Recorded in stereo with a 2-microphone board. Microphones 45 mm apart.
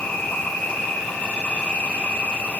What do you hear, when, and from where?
0.0 s an insect: 40° left (ahead or behind), 2.5 m